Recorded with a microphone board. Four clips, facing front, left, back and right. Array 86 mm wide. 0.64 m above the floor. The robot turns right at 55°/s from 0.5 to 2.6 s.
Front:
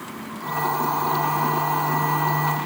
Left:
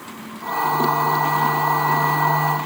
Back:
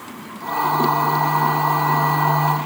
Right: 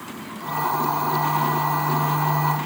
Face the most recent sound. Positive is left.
No sound to turn to.